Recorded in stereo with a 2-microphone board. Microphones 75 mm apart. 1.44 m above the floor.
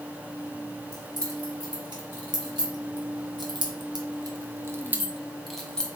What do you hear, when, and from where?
0.9 s keys jangling: 65° right (ahead or behind), 3.5 m; by 5.9 s 10° left (ahead or behind), 1.3 m